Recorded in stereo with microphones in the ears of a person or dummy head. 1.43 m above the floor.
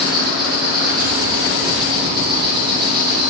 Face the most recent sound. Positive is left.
turn(degrees=-20)  # may be behind; listen again after turning